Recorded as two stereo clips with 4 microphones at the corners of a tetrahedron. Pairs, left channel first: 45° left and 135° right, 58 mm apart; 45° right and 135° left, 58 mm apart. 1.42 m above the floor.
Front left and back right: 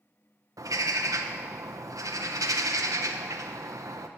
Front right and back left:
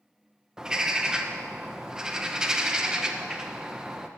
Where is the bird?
145° right, 1.2 m.